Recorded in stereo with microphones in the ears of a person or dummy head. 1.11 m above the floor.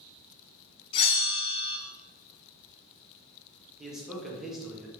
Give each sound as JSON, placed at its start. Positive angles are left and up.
{"t": 0.9, "sound": "a bell", "side_deg": 35, "distance_m": 0.8}
{"t": 3.8, "sound": "a man speaking", "side_deg": 5, "distance_m": 1.2}